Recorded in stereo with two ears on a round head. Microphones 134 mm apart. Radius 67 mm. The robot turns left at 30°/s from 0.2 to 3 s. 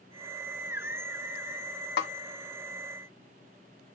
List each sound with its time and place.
2.0 s a snare drum: 75° left (ahead or behind), 0.6 m